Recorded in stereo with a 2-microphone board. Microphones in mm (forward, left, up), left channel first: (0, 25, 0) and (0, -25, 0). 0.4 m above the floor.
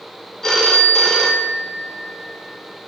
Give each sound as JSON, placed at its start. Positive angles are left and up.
{"t": 0.4, "sound": "a phone ringing", "side_deg": 10, "distance_m": 0.6}